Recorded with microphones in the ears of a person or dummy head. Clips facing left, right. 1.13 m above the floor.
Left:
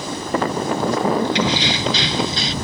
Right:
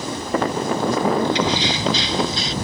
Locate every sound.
1.4 s keys jangling: 55° left (ahead or behind)